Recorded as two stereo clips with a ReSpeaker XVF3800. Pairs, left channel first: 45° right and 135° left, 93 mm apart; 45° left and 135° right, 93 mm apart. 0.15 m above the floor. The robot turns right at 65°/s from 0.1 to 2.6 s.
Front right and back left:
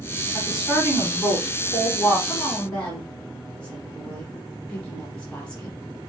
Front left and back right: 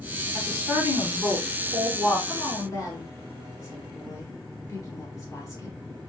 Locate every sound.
0.3 s a woman speaking: 145° right, 1.7 m; by 2.2 s 25° right, 1.7 m
2.3 s a woman speaking: 5° left, 1.5 m; by 5.8 s 30° left, 1.5 m